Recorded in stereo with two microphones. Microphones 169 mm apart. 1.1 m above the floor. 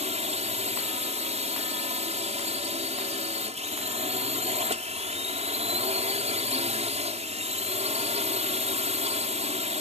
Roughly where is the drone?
Right.